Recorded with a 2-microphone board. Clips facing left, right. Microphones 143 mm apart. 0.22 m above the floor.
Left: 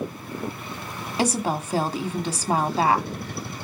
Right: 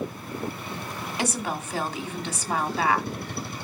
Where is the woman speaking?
35° left (ahead or behind), 1.2 m.